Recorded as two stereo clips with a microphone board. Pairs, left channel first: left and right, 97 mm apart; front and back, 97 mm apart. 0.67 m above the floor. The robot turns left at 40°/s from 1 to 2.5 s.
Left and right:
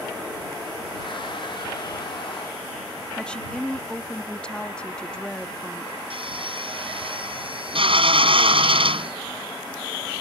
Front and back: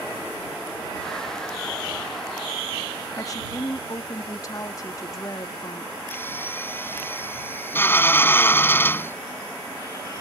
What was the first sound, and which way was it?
A woman speaking, 15° left.